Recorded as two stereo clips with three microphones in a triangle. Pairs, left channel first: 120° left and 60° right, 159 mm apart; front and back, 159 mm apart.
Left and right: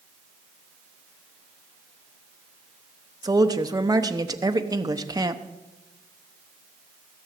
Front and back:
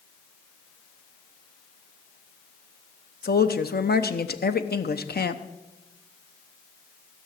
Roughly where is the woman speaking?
Ahead.